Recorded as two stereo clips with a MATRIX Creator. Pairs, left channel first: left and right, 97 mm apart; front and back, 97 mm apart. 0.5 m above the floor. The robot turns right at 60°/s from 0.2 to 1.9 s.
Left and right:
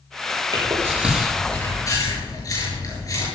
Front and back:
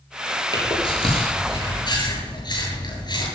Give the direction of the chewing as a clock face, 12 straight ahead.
1 o'clock.